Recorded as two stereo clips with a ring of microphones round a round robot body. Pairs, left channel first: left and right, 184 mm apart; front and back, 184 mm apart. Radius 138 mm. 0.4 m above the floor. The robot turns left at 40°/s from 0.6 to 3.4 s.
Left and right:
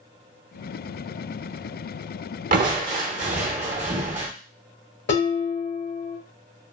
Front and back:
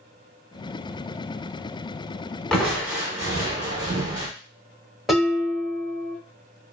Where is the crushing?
85° right, 0.9 m; by 4.3 s 120° right, 0.9 m.